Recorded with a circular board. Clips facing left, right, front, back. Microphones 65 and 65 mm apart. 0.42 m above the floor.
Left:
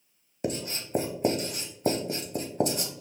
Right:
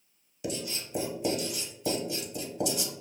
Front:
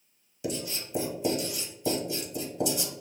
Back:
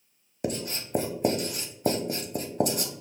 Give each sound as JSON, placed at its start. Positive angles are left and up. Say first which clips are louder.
{"t": 0.4, "sound": "writing", "louder": "left 3 dB, back 2 dB", "azimuth_deg": 140, "distance_m": 0.6}